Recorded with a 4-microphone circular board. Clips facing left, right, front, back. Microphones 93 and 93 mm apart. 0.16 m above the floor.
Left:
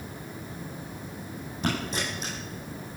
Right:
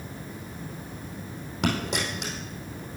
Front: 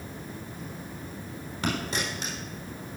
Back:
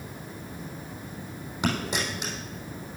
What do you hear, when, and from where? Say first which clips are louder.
1.6 s a dropped coin: right 2 dB, back 2 dB; 105° right, 3.5 m